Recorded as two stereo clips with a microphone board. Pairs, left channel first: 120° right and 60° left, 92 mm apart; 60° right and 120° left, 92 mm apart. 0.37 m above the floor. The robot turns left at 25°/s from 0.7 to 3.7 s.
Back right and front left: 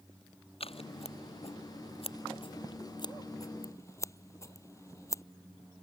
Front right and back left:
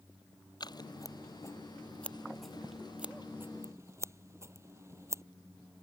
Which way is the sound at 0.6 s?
105° right.